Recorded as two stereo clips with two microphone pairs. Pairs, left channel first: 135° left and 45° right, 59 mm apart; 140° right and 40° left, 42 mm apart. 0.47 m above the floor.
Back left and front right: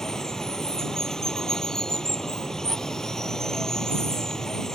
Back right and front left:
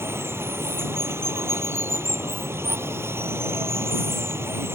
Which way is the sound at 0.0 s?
55° left.